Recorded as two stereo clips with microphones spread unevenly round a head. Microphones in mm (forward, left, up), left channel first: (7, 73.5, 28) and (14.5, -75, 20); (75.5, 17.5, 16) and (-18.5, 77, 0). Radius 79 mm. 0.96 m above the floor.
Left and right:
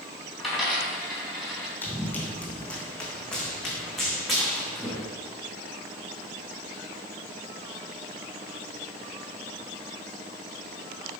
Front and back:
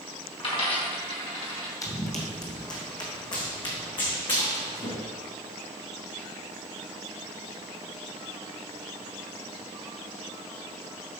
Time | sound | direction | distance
0.4 | a dropped coin | 5° left | 3.5 m
1.8 | running footsteps | 20° left | 2 m